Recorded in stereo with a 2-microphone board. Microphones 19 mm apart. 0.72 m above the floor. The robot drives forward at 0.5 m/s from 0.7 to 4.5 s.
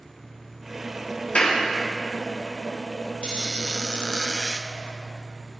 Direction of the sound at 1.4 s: 75° left (ahead or behind).